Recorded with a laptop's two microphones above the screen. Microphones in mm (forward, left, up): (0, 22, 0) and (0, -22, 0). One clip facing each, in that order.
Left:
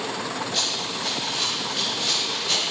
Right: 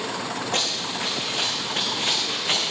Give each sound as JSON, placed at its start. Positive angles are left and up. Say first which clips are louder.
{"t": 0.5, "sound": "running footsteps", "louder": "right 1 dB", "side_deg": -70, "distance_m": 3.5}